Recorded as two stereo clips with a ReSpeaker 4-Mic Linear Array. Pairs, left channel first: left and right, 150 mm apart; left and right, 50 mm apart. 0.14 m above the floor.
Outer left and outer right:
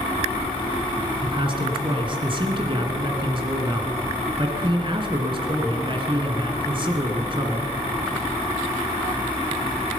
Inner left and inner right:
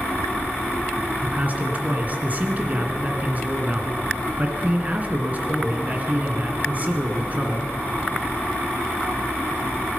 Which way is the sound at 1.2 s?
35° right (ahead or behind).